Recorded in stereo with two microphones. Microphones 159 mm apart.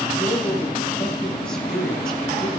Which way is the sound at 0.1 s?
5° left (ahead or behind).